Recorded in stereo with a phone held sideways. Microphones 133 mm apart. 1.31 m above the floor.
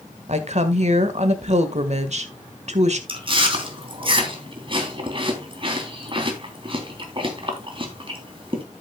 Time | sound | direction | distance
0.3 | a woman speaking | 60° right (ahead or behind) | 1.5 m
3.1 | chewing | 40° right (ahead or behind) | 3 m